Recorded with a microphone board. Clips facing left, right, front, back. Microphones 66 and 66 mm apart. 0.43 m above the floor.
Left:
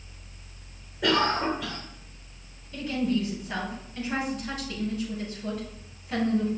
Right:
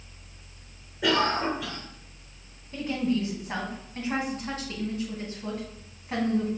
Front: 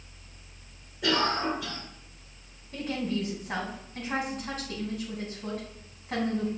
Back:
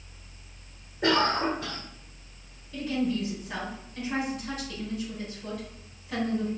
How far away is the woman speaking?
About 4 m.